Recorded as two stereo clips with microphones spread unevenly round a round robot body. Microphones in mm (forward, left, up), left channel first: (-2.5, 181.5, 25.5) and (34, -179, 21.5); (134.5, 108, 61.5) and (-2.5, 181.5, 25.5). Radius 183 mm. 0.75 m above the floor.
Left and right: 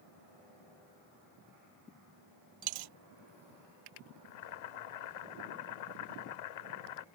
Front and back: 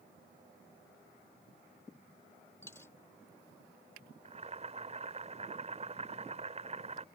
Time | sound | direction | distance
2.6 | a dropped coin | 100° right | ?
4.2 | boiling | 100° left | ?